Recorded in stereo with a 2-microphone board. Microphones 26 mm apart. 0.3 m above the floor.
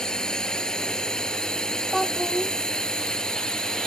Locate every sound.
0.0 s a drone: 30° left (ahead or behind)
1.9 s a child speaking: 5° right (ahead or behind)